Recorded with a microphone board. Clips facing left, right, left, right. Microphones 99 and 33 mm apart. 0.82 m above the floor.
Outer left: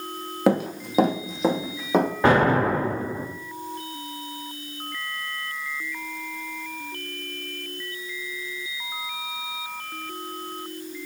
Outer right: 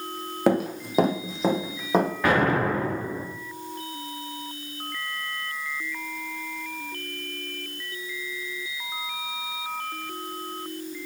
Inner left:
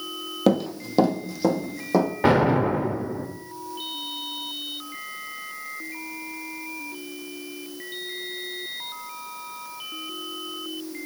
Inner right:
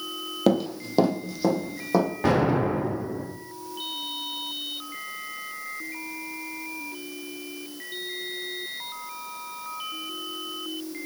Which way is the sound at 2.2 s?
30° left (ahead or behind).